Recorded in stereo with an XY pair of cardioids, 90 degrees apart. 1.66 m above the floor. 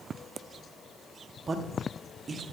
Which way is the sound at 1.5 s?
40° right.